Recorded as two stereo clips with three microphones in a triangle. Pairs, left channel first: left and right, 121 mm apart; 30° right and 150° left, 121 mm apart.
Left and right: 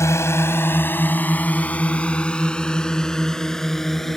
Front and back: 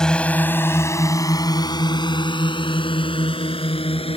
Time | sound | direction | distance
0.0 | a drone | 50° left | ?